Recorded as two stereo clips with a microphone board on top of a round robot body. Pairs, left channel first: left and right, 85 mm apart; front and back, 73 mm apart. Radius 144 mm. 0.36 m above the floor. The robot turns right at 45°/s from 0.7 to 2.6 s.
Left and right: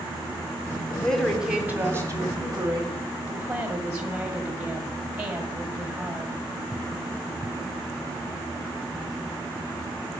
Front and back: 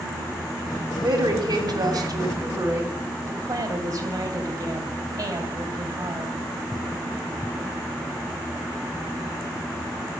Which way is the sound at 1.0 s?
170° left.